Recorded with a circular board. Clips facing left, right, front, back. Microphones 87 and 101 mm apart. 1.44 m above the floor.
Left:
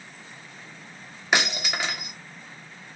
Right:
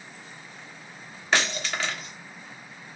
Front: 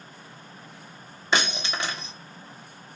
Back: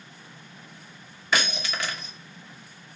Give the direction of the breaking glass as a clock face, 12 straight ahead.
11 o'clock.